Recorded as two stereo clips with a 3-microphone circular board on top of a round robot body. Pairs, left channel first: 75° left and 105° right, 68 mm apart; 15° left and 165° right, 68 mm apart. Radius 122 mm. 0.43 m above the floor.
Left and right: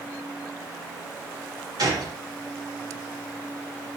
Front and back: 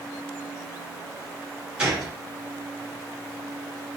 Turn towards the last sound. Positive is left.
turn(degrees=-90)